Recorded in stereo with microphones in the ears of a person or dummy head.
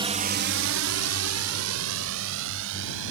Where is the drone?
30° right (ahead or behind); by 3.1 s 75° right (ahead or behind).